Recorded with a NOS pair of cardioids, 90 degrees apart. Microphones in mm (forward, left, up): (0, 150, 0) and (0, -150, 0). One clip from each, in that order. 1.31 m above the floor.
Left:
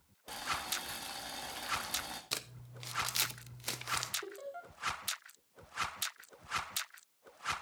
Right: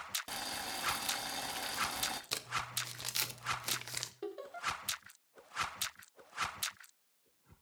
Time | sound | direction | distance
0.3 | boiling | 25° right | 1.6 m
2.3 | crumpling | 5° left | 0.9 m
4.2 | laughter | 30° right | 3 m